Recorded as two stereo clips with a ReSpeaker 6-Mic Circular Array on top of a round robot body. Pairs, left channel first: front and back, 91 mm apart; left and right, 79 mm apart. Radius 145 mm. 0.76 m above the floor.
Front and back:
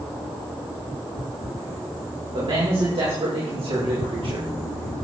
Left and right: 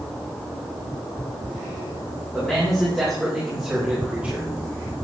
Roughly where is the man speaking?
Behind.